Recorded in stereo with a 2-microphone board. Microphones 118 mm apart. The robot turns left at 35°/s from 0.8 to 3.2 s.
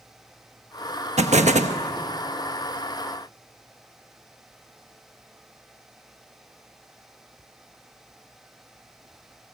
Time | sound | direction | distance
1.2 | an explosion | 75° right (ahead or behind) | 1.2 m